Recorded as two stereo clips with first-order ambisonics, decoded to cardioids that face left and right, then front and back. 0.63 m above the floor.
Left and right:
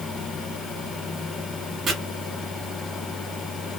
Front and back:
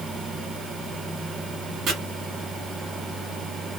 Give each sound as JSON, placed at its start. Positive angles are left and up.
{"t": 1.9, "sound": "chopping", "azimuth_deg": -140, "distance_m": 1.3}